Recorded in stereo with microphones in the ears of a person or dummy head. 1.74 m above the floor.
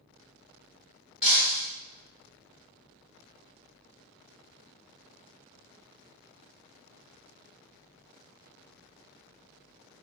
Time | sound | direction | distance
1.2 | breaking glass | 5° right (ahead or behind) | 0.8 m